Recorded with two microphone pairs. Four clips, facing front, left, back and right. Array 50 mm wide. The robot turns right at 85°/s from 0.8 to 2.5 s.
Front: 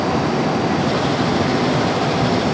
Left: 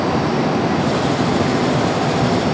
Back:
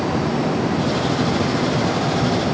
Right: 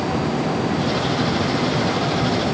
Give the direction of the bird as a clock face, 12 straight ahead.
I don't hear a bird.